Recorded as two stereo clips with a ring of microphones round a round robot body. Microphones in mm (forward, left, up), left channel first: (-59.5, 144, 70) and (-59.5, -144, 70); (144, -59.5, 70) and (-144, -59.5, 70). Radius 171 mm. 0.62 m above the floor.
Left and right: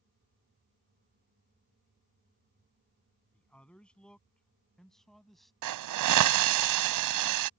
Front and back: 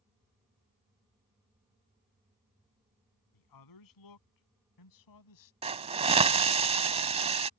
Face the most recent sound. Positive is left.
turn(degrees=-110)